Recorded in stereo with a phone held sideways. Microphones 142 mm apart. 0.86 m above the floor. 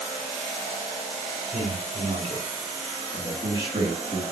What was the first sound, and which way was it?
A man speaking, 50° right (ahead or behind).